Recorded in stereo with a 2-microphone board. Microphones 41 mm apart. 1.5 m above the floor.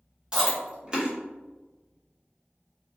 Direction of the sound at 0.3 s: 20° right (ahead or behind).